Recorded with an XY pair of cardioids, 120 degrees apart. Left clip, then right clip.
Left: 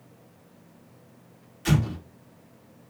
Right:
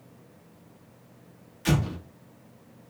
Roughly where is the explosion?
Ahead.